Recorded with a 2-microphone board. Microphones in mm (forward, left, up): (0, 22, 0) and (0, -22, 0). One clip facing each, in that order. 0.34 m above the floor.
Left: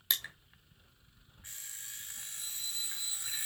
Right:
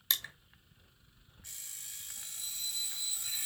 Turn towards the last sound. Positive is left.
turn(degrees=40)  # may be behind; listen again after turning